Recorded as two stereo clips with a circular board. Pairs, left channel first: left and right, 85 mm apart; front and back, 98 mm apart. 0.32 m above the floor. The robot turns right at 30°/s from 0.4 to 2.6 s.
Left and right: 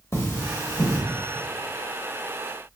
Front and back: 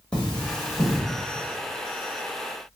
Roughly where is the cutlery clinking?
Left.